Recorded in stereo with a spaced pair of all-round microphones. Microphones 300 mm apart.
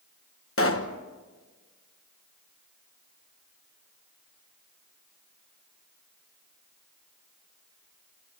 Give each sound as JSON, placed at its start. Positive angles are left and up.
{"t": 0.6, "sound": "a pop", "side_deg": 45, "distance_m": 1.1}